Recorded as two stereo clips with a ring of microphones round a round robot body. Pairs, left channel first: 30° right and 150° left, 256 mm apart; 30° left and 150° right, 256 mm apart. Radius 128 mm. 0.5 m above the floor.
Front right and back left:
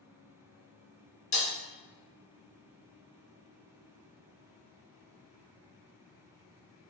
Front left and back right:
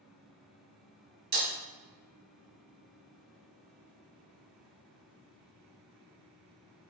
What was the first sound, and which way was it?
Breaking glass, 95° right.